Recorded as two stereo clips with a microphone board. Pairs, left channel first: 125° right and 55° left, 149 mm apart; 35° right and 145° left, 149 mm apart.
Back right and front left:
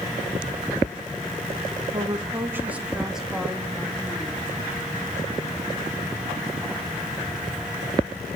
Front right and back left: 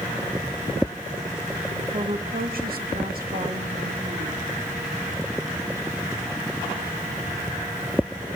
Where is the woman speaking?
115° left, 1.8 m; by 4.5 s 155° left, 5 m.